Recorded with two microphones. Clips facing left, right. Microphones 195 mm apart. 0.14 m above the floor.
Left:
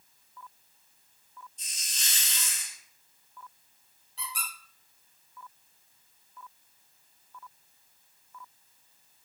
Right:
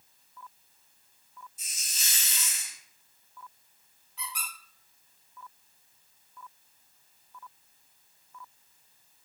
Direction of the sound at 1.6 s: 10° right (ahead or behind).